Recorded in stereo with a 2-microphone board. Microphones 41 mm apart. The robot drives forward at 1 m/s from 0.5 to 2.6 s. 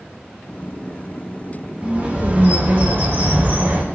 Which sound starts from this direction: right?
A bird, at 1.8 s.